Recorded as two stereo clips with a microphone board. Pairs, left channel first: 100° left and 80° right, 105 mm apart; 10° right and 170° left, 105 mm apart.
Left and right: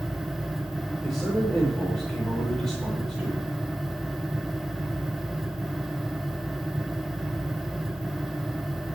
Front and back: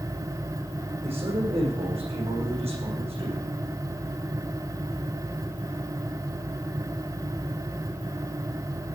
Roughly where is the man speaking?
Behind.